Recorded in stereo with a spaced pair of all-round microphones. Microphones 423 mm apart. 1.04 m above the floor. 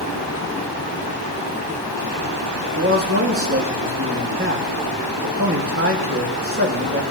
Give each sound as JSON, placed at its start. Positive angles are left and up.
{"t": 2.8, "sound": "a man speaking", "side_deg": -30, "distance_m": 1.7}